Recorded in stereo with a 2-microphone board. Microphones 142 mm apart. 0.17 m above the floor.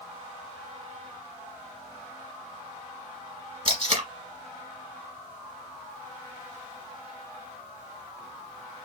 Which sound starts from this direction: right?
Tape being pulled, at 3.6 s.